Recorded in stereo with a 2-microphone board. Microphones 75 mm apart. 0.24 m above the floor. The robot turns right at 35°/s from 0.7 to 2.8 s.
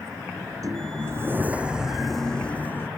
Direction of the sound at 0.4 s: 50° right.